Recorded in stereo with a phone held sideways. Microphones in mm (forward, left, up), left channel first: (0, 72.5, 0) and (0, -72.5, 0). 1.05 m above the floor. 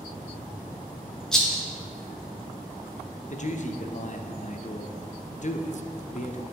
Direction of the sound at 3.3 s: 55° left (ahead or behind).